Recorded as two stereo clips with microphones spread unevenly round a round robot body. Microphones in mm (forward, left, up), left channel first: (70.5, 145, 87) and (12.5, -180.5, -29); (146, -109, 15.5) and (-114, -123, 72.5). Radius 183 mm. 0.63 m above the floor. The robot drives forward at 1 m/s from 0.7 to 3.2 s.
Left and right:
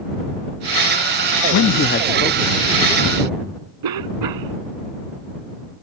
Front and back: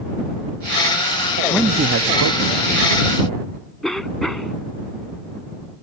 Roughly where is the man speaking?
Ahead left.